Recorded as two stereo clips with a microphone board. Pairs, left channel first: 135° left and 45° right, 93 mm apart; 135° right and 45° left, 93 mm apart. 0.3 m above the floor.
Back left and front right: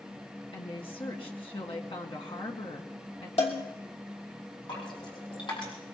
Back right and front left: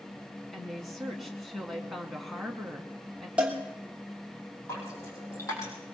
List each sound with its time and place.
0.5 s a woman speaking: 140° left, 2.5 m
3.4 s a cowbell: 125° left, 3 m
4.7 s dripping: 170° left, 5.5 m